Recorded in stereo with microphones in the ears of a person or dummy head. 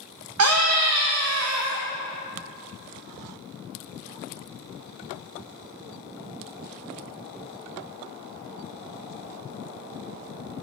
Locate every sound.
0.4 s a scream: 80° right, 0.6 m